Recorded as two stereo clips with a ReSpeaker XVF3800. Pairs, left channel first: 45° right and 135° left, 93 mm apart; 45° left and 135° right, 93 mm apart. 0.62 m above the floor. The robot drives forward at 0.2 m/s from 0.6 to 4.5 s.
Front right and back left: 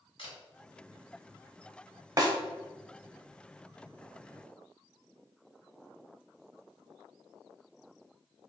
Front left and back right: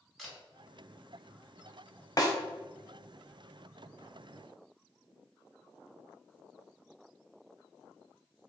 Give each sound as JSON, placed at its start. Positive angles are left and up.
{"t": 0.2, "sound": "a camera shutter", "azimuth_deg": -45, "distance_m": 1.6}
{"t": 2.2, "sound": "a snare drum", "azimuth_deg": 90, "distance_m": 0.6}